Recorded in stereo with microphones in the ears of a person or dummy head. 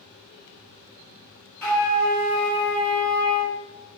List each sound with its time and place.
1.6 s a flute: 5° left (ahead or behind), 1.1 m